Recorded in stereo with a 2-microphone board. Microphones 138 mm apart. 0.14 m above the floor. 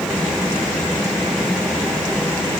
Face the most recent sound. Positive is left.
No sound to turn to.